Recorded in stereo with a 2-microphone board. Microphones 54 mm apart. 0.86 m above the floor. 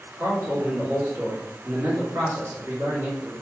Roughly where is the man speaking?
Right.